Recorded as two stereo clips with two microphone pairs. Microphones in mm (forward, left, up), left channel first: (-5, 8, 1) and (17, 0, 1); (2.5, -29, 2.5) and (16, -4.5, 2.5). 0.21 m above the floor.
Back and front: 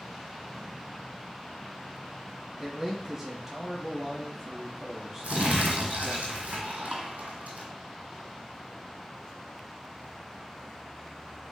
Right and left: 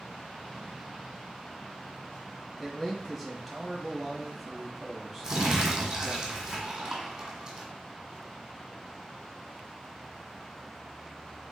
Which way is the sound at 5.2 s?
10° right.